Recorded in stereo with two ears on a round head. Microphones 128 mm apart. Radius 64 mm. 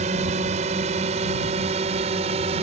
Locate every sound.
0.0 s a drone: 50° right (ahead or behind); by 2.6 s 45° right (ahead or behind)